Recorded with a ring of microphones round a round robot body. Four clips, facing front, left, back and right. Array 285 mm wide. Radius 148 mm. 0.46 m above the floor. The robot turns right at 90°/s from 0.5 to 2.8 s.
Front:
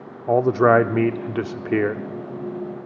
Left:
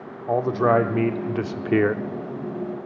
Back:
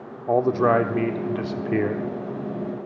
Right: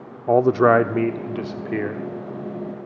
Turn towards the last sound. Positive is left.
turn(degrees=145)